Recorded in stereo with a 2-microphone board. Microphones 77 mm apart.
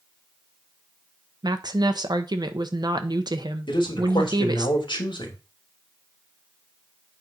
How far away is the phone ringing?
I don't hear a phone ringing.